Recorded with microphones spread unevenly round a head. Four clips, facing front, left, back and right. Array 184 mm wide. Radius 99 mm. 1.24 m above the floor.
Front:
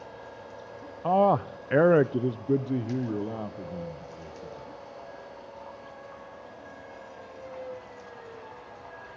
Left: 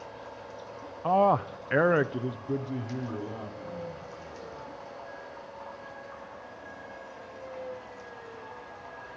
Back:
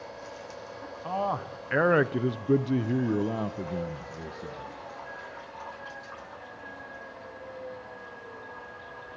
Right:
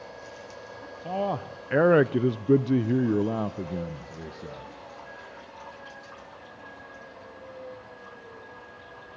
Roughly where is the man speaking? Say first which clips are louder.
Left 6 dB, front 8 dB; ahead.